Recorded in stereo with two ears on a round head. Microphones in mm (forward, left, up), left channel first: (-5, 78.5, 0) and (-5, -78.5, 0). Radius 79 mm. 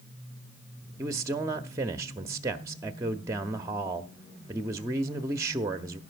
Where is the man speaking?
20° right (ahead or behind), 0.6 m.